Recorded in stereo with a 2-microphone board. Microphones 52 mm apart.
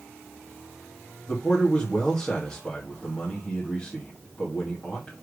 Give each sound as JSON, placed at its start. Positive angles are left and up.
{"t": 1.3, "sound": "a man speaking", "side_deg": 30, "distance_m": 2.5}